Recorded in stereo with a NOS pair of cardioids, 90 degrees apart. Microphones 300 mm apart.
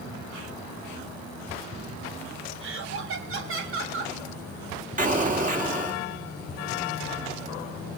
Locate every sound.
2.6 s laughter: 45° right, 1.3 m
5.0 s an explosion: 25° right, 3 m